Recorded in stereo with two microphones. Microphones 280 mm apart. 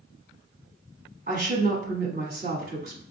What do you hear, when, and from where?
1.3 s a woman speaking: 35° right (ahead or behind), 1.4 m